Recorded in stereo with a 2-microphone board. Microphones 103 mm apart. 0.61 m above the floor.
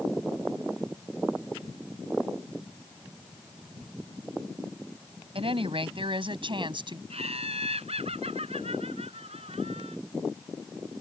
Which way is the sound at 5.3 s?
65° right (ahead or behind).